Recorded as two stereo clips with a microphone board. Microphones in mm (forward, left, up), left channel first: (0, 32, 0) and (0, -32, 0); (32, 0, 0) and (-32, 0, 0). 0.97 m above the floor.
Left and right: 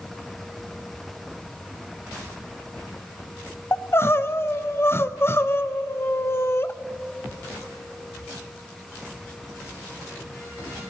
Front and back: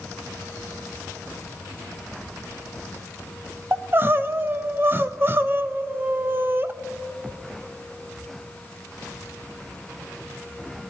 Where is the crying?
130° left, 0.6 m.